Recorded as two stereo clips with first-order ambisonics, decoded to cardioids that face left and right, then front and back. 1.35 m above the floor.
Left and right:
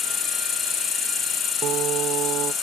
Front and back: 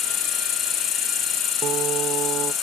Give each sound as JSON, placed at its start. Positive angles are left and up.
{"t": 0.0, "sound": "an insect", "azimuth_deg": 40}
{"t": 1.6, "sound": "singing", "azimuth_deg": -135}